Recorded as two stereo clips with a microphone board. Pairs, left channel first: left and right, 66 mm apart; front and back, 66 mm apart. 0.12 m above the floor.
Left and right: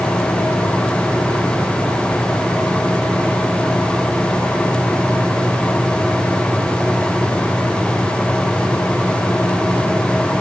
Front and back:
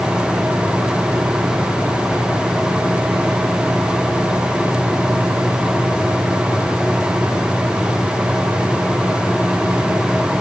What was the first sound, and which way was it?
Only background noise.